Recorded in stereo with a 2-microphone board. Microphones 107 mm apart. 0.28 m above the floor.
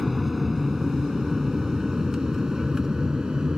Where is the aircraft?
Centre (ahead or behind); by 3.6 s 5° right (ahead or behind).